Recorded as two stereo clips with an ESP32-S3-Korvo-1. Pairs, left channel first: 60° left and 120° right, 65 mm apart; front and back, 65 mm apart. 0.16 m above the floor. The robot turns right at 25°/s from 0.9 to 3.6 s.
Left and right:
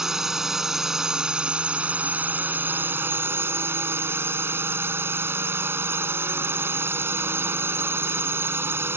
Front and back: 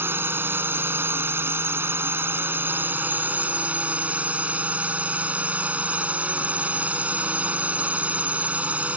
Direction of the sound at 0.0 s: 160° left.